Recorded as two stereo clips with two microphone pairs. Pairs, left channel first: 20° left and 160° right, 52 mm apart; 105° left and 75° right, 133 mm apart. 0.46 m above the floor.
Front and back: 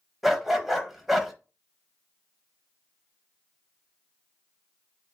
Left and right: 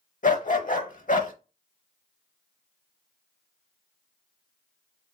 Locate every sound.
0.2 s a dog barking: 115° left, 0.7 m